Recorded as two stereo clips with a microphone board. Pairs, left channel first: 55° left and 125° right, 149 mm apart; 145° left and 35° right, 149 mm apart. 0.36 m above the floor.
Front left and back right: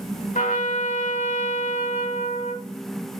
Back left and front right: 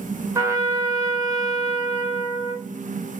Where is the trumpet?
30° left, 0.7 m.